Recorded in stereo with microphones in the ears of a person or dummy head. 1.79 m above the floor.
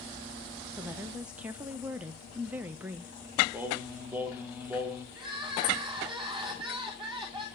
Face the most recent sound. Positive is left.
turn(degrees=-25)  # may be behind; listen again after turning